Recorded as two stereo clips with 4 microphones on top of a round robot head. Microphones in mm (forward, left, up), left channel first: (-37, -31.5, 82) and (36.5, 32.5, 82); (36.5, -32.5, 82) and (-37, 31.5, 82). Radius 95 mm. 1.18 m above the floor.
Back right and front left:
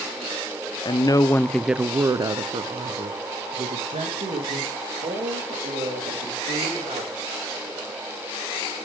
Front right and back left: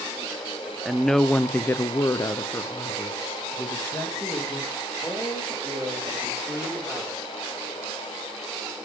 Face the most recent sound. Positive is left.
turn(degrees=25)